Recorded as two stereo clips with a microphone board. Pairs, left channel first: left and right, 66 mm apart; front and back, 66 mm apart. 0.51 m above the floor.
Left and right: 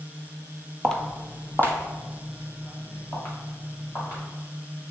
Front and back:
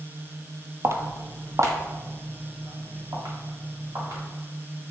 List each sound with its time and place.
0.8 s footsteps: 165° left, 0.6 m; by 4.2 s 140° left, 3 m